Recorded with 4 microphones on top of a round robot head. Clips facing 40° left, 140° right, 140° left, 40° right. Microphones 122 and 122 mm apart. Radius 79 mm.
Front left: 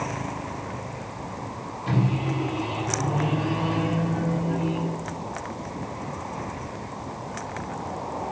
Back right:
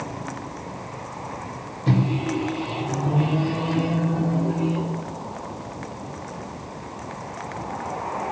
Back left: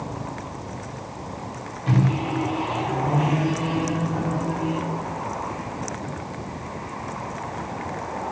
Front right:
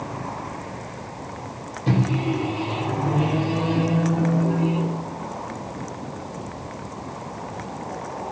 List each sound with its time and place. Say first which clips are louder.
1.9 s a microwave: back right 3 dB, front right 1 dB; 95° right, 1.0 m